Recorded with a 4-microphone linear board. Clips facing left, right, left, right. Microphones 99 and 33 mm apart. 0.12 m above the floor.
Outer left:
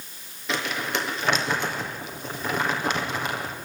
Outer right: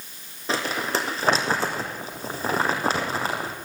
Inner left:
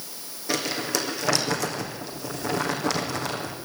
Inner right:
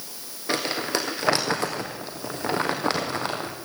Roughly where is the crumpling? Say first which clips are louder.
Outer right 2 dB, inner right 1 dB; right.